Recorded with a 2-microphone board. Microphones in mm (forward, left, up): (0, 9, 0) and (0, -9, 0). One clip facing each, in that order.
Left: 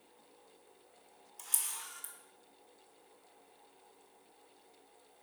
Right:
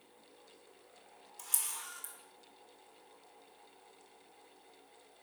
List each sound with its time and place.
1.4 s a camera shutter: centre (ahead or behind), 0.6 m